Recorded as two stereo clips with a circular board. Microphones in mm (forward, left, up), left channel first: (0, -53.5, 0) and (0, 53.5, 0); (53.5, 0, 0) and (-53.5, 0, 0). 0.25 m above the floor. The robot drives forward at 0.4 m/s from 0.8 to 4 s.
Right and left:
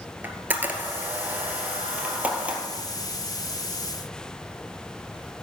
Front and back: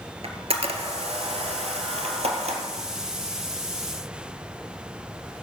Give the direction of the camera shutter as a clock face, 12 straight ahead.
7 o'clock.